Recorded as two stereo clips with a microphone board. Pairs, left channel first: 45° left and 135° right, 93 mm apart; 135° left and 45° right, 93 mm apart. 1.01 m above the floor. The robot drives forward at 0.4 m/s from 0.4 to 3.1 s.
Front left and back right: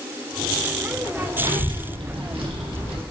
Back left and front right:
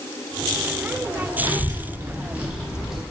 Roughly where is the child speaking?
Right.